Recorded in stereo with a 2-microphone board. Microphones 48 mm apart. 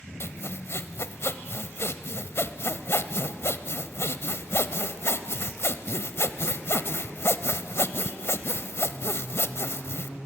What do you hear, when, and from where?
0.2 s sawing: 65° left (ahead or behind), 0.7 m